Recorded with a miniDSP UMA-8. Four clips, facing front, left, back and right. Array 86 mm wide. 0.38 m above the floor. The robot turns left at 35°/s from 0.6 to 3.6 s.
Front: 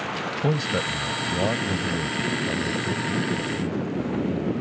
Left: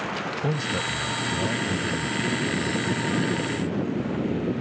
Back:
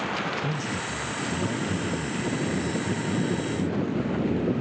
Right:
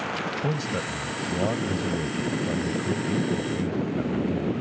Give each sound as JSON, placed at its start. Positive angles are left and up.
{"t": 0.4, "sound": "a man speaking", "azimuth_deg": 5}